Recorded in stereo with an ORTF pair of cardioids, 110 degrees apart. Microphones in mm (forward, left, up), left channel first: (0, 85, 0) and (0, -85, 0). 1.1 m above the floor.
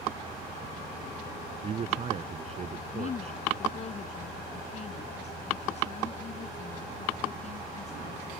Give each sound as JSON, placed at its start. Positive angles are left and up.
{"t": 1.6, "sound": "a man speaking", "azimuth_deg": -40}
{"t": 2.9, "sound": "a woman speaking", "azimuth_deg": 40}